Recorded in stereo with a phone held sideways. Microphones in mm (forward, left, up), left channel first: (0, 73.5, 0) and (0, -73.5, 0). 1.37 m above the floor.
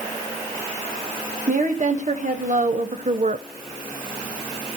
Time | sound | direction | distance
1.5 | a woman speaking | 60° right (ahead or behind) | 1.9 m